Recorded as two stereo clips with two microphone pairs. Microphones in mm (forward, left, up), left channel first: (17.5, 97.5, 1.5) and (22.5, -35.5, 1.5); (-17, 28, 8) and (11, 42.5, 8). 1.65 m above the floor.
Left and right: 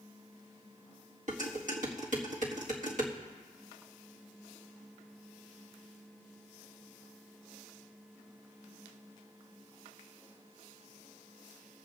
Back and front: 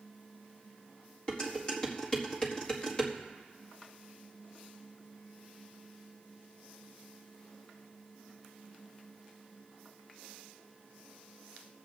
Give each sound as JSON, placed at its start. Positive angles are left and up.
{"t": 1.3, "sound": "dishes clattering", "azimuth_deg": -90, "distance_m": 1.7}